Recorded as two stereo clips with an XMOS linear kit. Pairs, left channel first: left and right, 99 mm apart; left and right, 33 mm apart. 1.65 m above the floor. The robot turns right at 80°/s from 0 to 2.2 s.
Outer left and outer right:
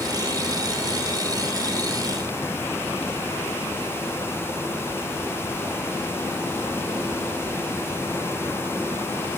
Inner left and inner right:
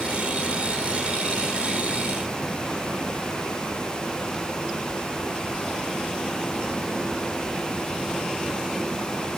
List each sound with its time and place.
Only background noise.